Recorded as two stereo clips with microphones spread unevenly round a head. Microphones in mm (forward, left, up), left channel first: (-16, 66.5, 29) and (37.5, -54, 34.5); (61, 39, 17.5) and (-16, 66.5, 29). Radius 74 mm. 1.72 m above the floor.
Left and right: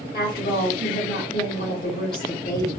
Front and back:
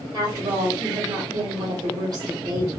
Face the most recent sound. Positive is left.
turn(degrees=140)